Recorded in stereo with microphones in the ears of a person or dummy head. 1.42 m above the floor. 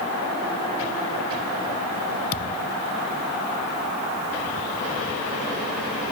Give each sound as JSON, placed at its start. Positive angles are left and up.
{"t": 2.3, "sound": "a thud", "side_deg": 40}